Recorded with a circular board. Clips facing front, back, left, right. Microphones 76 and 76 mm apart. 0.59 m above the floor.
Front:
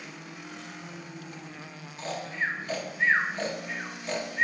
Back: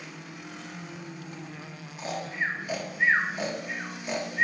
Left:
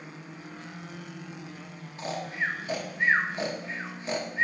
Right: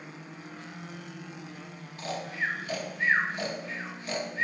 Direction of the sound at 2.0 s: 115° left.